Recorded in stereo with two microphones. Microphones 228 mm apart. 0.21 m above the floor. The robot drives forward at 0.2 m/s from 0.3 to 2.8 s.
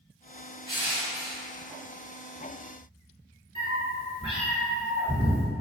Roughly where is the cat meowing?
Right.